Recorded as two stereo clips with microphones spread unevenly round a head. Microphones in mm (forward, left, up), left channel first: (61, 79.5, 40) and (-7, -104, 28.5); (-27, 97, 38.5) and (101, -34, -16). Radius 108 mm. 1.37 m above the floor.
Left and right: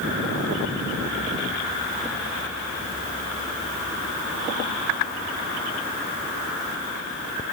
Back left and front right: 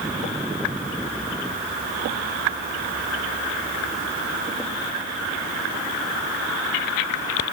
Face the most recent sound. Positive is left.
No sound to turn to.